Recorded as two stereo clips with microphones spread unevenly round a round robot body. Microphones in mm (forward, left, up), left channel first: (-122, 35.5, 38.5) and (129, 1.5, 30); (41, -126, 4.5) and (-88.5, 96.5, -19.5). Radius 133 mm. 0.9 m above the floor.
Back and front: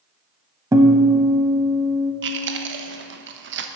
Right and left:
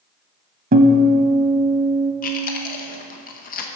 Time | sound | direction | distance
0.7 | a guitar | 70° left | 0.9 m
2.2 | chewing | 5° right | 0.9 m